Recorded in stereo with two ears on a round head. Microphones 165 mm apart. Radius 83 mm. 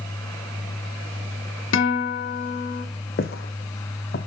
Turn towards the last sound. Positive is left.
turn(degrees=55)  # may be behind; listen again after turning